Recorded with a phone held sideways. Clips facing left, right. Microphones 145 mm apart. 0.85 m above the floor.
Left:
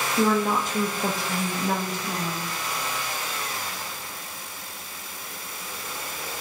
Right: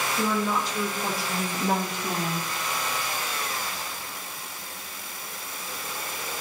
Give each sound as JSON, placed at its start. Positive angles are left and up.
{"t": 0.2, "sound": "a woman speaking", "side_deg": 65, "distance_m": 1.8}